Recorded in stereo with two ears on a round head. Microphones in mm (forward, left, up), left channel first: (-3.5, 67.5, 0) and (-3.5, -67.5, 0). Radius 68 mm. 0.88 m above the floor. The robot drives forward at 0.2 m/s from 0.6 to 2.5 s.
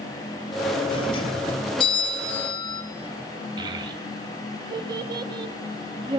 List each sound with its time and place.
0.9 s a doorbell: 35° left (ahead or behind), 1.2 m; by 2.8 s 30° left (ahead or behind), 1.3 m
3.6 s a child speaking: 30° right (ahead or behind), 0.6 m